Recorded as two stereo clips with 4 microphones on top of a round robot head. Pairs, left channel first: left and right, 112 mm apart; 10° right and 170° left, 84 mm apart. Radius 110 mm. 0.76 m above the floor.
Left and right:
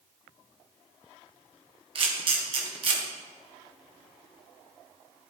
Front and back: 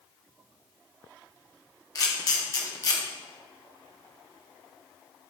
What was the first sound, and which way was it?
A camera shutter, 55° right.